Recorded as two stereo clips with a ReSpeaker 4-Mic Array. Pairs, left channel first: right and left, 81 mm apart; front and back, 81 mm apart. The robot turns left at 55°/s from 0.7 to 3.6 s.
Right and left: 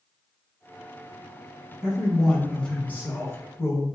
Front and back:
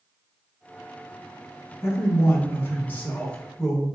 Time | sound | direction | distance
1.8 | a man speaking | 20° left | 1.2 m